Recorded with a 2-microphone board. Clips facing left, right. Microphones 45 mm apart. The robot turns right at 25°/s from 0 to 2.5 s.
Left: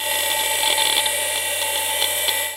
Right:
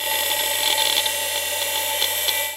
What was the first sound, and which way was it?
Only background noise.